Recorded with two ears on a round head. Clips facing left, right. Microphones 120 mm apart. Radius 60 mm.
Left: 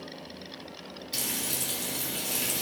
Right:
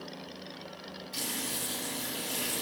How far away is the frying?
About 4.5 m.